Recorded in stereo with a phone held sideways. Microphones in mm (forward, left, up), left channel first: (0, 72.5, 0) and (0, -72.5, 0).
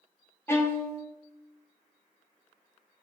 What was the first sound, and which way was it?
A violin, 15° left (ahead or behind).